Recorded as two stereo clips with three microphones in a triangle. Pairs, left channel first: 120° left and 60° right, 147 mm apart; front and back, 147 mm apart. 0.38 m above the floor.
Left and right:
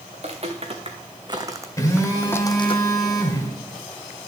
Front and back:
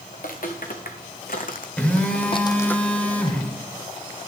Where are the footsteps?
20° right, 2 m; by 2.8 s 80° left, 0.8 m.